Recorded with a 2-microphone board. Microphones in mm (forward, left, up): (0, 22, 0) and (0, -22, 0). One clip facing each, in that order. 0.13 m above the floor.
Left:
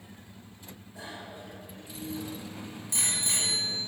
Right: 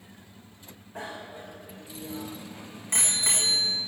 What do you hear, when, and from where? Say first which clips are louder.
0.9 s a bicycle bell: right 4 dB; 45° right (ahead or behind), 6.5 m